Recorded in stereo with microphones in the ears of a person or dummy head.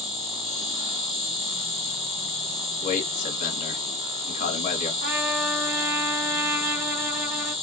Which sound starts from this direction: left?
A man speaking, at 2.8 s.